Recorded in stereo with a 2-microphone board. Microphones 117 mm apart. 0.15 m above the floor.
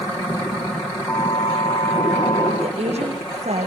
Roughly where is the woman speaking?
Right.